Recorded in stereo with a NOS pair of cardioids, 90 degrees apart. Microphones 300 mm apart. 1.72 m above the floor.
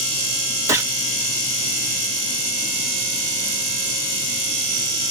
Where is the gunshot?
10° right, 0.6 m.